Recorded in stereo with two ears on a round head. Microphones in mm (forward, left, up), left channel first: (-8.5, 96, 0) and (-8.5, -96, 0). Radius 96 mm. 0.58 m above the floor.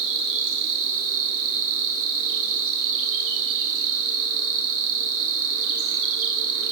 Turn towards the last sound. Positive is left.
turn(degrees=-70)  # may be behind; listen again after turning